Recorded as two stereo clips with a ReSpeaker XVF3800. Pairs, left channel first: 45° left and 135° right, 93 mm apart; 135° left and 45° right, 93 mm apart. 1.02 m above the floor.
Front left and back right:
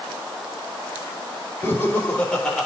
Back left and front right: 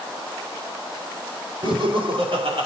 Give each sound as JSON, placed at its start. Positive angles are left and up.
{"t": 1.6, "sound": "laughter", "azimuth_deg": -25, "distance_m": 4.0}